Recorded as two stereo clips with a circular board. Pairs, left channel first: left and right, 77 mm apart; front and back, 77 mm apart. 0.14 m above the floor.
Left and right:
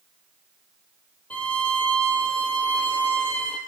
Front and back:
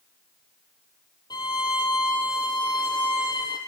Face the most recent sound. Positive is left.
turn(degrees=20)